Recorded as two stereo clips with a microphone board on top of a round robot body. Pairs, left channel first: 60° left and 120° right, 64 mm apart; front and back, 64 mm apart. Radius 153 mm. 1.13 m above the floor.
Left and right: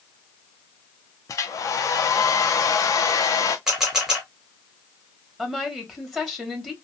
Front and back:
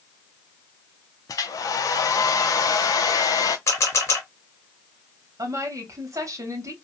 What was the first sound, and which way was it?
A hair dryer, 25° left.